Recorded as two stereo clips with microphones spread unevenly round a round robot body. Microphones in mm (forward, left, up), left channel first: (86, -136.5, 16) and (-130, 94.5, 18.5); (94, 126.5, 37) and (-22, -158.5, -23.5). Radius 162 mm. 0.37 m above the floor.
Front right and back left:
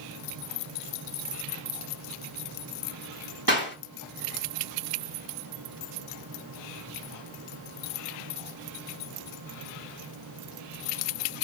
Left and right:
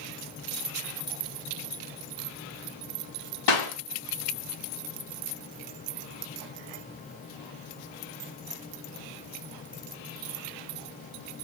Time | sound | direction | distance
3.5 | a clap | 80° left | 3 m